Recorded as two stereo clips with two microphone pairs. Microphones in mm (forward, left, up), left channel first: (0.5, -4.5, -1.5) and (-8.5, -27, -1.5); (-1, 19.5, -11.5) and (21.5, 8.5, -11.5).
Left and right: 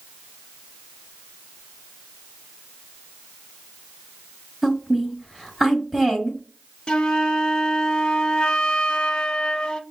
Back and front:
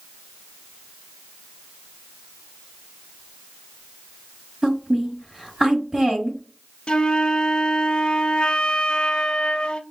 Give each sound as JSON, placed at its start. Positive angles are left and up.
{"t": 4.6, "sound": "a woman speaking", "azimuth_deg": -40, "distance_m": 1.4}
{"t": 6.9, "sound": "a flute", "azimuth_deg": 110, "distance_m": 0.6}